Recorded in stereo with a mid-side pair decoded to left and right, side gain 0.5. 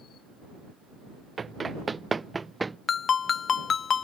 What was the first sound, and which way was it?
Running footsteps, 30° right.